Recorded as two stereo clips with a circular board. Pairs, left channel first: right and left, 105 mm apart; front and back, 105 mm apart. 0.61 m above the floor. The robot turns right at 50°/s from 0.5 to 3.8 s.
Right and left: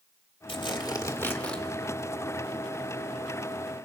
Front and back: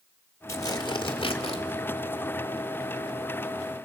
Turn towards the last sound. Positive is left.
turn(degrees=105)